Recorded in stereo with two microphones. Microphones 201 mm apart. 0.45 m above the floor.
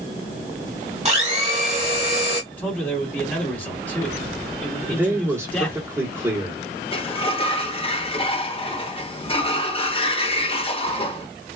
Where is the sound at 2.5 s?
10° left (ahead or behind), 1.9 m.